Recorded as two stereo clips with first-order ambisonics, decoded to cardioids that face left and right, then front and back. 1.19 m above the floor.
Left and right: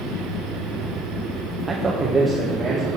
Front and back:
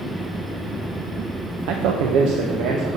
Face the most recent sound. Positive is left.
turn(degrees=-170)